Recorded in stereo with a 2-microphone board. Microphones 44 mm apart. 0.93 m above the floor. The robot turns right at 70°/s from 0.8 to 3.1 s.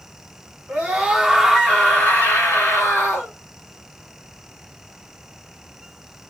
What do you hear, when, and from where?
0.7 s a scream: 45° right, 2.0 m; by 3.3 s 115° left, 2.0 m